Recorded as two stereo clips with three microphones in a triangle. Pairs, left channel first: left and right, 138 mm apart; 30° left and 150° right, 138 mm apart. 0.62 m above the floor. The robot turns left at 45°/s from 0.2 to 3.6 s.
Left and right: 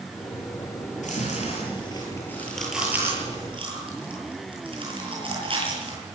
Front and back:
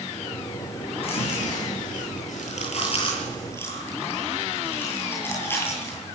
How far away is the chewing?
About 9.5 m.